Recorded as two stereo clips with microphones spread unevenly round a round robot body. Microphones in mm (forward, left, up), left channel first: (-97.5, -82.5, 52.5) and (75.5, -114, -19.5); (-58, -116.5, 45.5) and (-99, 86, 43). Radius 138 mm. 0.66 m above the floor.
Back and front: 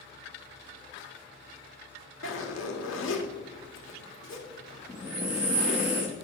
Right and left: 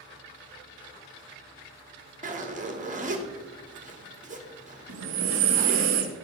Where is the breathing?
90° left, 0.7 m.